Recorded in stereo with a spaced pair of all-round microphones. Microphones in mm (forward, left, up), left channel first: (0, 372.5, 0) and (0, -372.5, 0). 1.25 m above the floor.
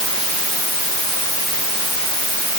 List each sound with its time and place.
Only background noise.